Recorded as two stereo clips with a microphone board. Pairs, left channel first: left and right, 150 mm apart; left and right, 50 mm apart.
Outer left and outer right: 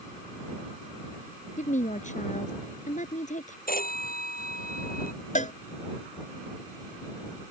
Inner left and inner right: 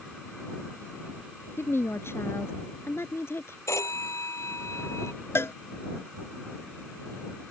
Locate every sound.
1.6 s a woman speaking: 55° left (ahead or behind)
3.7 s a phone ringing: 75° left (ahead or behind)
5.3 s a cowbell: 55° left (ahead or behind)